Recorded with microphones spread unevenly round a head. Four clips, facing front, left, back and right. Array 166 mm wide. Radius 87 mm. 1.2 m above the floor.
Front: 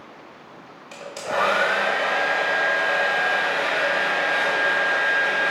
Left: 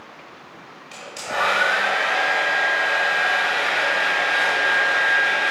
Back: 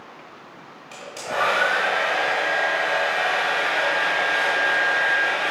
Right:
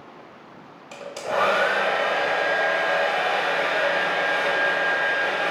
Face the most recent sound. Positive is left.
turn(degrees=-65)